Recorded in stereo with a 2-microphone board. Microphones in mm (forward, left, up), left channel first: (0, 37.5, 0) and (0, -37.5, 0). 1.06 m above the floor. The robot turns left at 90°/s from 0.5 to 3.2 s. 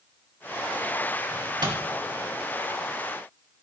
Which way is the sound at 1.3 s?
60° right (ahead or behind).